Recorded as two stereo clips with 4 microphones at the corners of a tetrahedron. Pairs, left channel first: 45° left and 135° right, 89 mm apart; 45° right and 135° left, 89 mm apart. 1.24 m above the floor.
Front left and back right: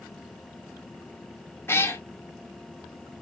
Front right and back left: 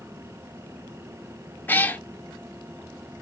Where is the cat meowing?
10° left, 0.7 m.